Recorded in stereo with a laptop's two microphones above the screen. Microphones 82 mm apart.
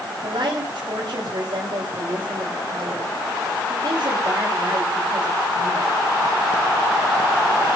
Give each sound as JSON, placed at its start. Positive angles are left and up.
{"t": 0.2, "sound": "a woman speaking", "side_deg": -80, "distance_m": 4.0}